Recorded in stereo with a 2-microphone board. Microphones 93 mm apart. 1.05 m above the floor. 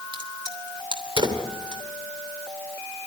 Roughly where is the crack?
Right.